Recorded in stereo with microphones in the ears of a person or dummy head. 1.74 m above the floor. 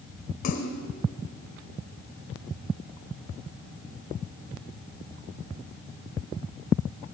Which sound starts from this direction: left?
A splash, at 0.4 s.